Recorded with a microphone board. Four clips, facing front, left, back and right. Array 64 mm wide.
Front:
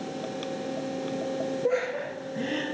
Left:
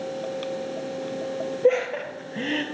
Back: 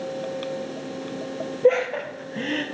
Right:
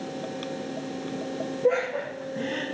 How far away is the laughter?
About 2.5 m.